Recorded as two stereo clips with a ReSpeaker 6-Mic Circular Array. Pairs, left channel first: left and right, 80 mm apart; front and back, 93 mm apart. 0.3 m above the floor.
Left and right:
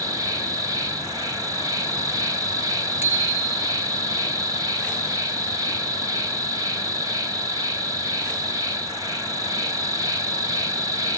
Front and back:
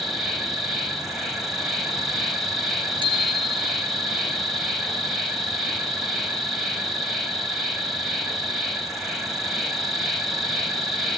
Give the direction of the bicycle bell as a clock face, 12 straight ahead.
5 o'clock.